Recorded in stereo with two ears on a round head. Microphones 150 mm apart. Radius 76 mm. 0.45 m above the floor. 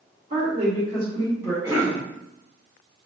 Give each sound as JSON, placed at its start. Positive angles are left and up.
{"t": 0.3, "sound": "a woman speaking", "side_deg": -35, "distance_m": 1.4}
{"t": 1.6, "sound": "a cough", "side_deg": -20, "distance_m": 1.3}